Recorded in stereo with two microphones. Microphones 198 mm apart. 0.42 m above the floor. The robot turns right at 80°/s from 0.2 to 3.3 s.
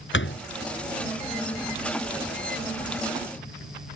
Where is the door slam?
80° left; by 0.5 s 75° left (ahead or behind).